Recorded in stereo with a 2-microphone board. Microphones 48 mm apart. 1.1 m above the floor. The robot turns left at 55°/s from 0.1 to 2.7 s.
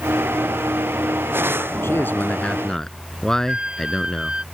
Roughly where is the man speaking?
Ahead left.